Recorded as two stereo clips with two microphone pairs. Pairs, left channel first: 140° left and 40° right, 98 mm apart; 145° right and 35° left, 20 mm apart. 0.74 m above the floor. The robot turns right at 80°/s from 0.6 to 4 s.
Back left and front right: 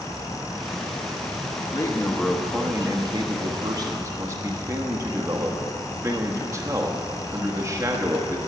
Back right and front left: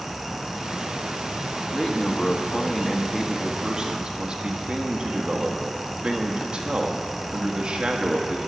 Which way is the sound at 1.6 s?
170° left.